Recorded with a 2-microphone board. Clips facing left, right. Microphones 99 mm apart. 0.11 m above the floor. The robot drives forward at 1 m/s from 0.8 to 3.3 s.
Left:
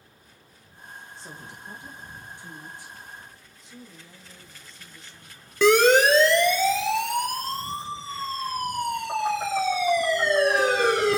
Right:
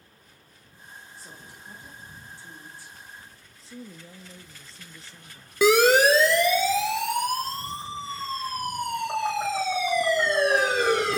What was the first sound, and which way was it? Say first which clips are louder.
A woman speaking: left 4 dB; 25° left (ahead or behind).